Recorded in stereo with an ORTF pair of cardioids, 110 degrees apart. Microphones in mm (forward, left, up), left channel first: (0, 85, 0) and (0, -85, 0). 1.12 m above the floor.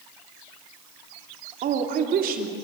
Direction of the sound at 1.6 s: 60° right.